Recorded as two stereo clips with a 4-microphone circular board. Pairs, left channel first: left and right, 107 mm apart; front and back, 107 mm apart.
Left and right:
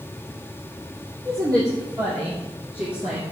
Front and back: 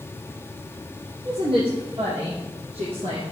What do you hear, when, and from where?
1.2 s a woman speaking: 145° right, 5 m; by 3.2 s 175° right, 3 m